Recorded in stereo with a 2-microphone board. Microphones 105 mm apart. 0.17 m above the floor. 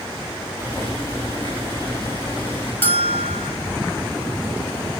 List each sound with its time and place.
0.6 s boiling: 30° left (ahead or behind), 8.5 m
2.8 s a bell: 20° left (ahead or behind), 1.1 m